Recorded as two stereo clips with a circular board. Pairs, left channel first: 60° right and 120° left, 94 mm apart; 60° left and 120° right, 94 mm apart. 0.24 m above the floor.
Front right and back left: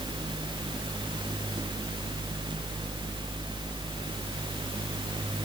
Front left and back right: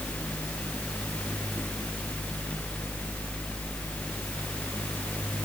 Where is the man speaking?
I don't hear a man speaking.